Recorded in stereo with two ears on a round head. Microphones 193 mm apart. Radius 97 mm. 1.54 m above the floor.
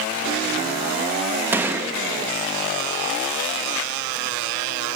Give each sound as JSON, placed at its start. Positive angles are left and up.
{"t": 1.5, "sound": "a gunshot", "side_deg": -10, "distance_m": 0.9}